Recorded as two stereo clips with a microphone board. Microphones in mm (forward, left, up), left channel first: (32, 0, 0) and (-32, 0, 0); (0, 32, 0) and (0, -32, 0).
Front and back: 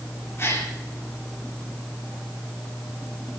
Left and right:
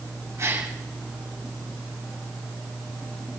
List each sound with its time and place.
0.4 s a gasp: 50° right, 8 m